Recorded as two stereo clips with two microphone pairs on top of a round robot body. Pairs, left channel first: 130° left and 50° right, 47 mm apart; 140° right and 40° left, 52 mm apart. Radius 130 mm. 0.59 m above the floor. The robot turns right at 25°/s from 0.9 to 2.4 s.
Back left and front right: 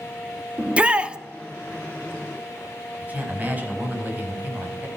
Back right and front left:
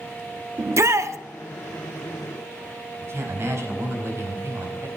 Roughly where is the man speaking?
Ahead.